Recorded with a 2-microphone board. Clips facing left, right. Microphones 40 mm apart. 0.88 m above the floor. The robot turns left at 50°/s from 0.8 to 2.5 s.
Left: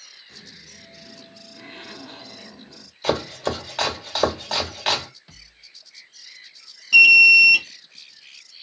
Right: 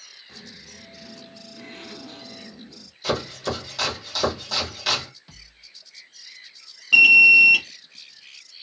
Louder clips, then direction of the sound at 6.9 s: Left 1 dB; 25° right (ahead or behind).